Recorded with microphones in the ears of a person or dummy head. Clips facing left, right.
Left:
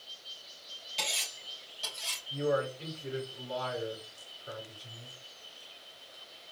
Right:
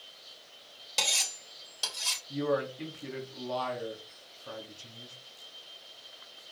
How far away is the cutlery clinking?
About 3 m.